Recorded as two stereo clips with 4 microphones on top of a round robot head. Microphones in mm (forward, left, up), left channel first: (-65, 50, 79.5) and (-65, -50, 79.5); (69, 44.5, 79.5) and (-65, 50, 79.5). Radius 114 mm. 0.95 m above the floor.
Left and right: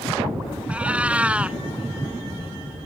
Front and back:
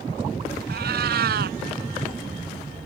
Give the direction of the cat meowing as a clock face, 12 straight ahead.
6 o'clock.